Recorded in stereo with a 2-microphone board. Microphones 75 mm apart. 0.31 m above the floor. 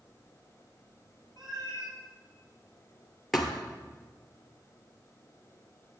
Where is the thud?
Centre (ahead or behind), 2.0 m.